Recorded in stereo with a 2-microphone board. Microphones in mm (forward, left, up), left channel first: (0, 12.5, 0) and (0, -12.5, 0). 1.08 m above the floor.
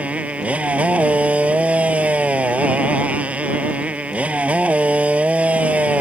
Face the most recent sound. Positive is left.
turn(degrees=-60)  # may be behind; listen again after turning